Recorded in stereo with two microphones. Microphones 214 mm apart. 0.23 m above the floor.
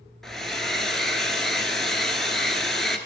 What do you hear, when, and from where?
0.2 s a hair dryer: centre (ahead or behind), 1.3 m